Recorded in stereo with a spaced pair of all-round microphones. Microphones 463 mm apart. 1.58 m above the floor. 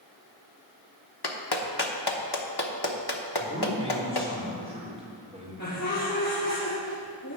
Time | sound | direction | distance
1.2 | a clap | 55° left (ahead or behind) | 1.2 m
3.4 | a man speaking | 10° right (ahead or behind) | 4.5 m
5.6 | laughter | 40° left (ahead or behind) | 3.5 m